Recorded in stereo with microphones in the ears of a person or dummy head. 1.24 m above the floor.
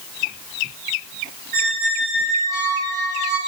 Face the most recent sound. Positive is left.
turn(degrees=-45)  # may be behind; listen again after turning